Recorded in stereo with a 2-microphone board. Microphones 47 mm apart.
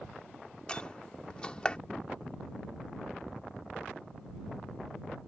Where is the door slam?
20° left (ahead or behind).